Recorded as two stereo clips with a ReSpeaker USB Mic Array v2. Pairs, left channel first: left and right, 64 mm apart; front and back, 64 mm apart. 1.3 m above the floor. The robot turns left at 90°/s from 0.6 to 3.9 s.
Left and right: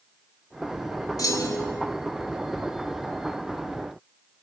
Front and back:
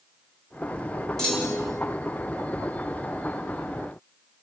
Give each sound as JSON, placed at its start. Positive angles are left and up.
{"t": 1.2, "sound": "a clunk", "azimuth_deg": 85, "distance_m": 4.5}